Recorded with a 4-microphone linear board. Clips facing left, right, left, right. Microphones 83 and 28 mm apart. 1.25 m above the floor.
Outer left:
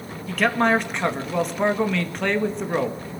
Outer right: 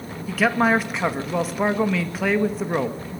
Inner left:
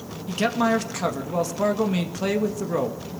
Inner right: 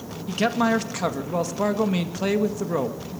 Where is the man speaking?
5° right (ahead or behind), 2.0 m.